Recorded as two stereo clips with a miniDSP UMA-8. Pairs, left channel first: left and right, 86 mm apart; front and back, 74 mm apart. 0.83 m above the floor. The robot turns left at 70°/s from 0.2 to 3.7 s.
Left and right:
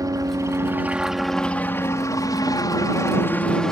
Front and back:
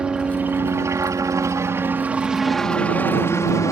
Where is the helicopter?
110° right; by 3.7 s 5° left.